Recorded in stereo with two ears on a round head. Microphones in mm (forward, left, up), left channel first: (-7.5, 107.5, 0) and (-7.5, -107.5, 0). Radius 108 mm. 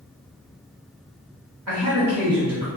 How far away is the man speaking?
About 1.0 m.